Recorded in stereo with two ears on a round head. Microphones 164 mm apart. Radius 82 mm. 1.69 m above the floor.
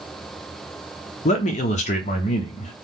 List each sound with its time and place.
1.2 s a man speaking: 40° left (ahead or behind), 0.5 m